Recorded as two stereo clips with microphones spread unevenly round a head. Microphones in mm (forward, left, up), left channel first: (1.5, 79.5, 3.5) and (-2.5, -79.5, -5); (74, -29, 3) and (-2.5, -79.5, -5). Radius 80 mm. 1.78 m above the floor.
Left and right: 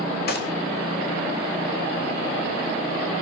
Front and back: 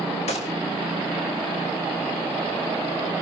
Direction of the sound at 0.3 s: 55° left.